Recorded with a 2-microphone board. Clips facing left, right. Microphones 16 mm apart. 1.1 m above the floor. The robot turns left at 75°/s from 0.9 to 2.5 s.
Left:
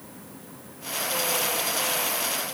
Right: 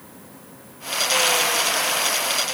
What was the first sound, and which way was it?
Only background noise.